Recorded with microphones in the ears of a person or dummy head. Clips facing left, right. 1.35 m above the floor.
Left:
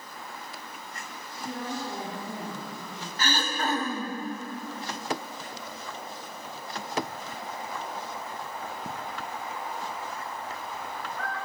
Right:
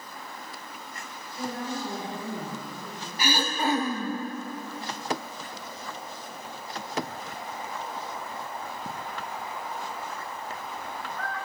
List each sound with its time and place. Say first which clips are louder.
1.4 s a woman speaking: right 2 dB; 80° right, 6.5 m; by 3.1 s 85° right, 7 m
3.2 s throat clearing: right 3 dB; 10° right (ahead or behind), 1.4 m